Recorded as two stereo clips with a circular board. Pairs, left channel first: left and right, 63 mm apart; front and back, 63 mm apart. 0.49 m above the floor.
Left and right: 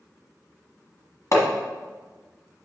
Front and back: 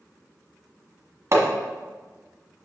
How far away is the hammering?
About 1.3 m.